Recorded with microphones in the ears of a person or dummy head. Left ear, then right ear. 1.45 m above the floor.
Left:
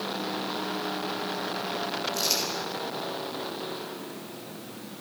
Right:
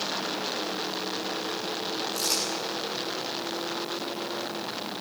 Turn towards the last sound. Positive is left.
turn(degrees=-35)  # may be behind; listen again after turning